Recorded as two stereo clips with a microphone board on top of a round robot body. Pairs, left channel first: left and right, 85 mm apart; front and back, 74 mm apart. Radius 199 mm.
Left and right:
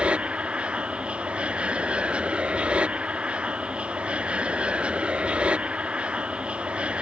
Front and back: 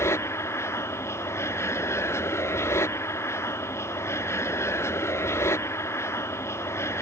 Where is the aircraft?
20° right.